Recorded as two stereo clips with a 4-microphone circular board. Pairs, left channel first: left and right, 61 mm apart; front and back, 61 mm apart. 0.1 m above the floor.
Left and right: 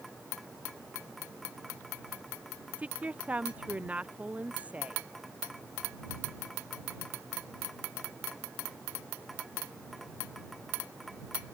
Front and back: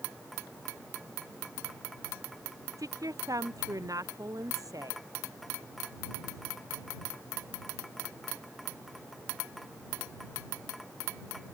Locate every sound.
2.8 s a woman speaking: 160° right